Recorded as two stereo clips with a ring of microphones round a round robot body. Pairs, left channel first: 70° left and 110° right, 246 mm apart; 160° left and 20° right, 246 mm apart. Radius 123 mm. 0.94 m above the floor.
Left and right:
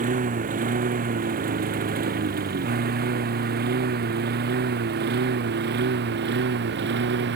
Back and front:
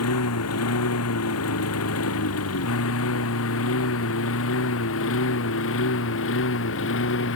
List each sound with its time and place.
0.0 s a lawn mower: 170° right; by 7.4 s 160° right